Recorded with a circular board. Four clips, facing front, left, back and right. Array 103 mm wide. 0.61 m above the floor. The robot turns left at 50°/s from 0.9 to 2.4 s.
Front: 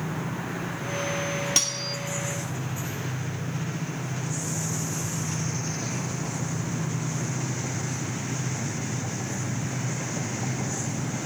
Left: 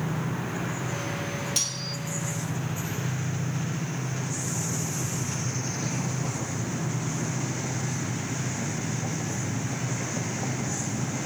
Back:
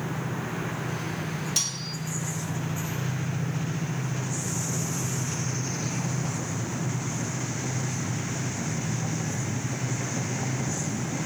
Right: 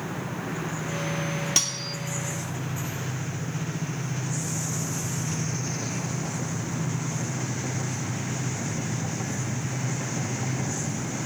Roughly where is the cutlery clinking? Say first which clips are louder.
Right 2 dB, front 4 dB; ahead right.